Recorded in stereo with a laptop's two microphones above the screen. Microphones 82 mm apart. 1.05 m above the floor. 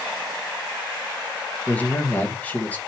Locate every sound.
1.7 s a man speaking: 20° left (ahead or behind), 1.2 m